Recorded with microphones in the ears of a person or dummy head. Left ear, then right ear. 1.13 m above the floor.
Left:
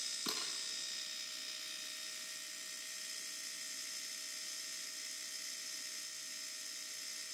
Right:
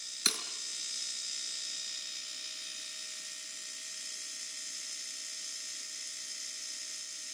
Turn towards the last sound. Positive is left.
turn(degrees=-55)  # may be behind; listen again after turning